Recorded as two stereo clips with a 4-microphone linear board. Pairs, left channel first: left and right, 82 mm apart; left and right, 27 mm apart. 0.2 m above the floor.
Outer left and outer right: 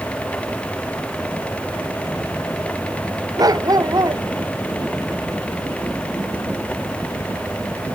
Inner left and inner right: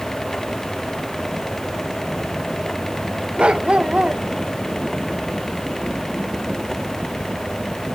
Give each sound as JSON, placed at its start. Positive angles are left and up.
{"t": 3.4, "sound": "a dog barking", "side_deg": -50}